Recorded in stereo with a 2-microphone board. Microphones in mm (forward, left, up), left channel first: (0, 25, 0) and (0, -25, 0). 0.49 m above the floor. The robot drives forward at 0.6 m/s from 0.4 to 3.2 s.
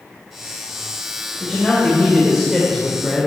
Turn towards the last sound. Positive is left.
turn(degrees=-5)  # may be behind; listen again after turning